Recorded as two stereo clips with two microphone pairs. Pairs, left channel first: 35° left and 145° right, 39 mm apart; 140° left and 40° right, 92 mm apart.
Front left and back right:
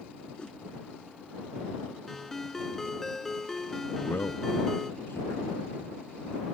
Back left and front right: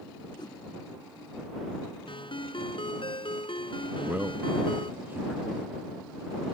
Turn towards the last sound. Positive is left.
turn(degrees=30)